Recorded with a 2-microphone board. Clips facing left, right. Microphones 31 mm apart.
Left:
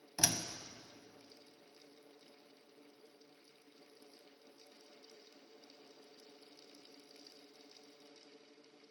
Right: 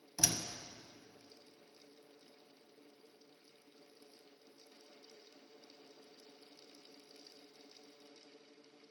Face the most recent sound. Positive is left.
turn(degrees=30)  # may be behind; listen again after turning